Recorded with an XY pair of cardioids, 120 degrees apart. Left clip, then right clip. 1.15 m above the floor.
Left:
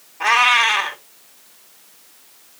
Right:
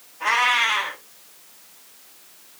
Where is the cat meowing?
70° left, 1.5 m.